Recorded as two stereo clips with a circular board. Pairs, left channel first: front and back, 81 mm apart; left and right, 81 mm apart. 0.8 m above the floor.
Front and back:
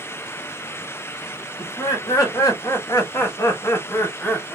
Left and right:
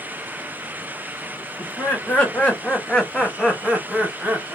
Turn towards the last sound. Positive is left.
turn(degrees=-55)